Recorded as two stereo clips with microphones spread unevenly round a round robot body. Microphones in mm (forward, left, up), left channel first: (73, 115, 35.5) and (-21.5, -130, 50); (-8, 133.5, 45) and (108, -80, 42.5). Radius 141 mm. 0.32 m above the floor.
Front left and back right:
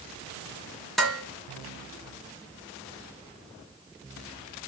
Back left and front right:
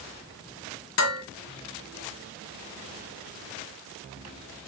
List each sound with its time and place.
1.0 s dishes clattering: 155° left, 2 m